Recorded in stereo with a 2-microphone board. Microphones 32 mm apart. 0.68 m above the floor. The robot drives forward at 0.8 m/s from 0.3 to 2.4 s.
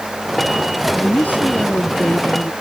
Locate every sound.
0.9 s a woman speaking: 55° left (ahead or behind); by 2.5 s 50° left (ahead or behind)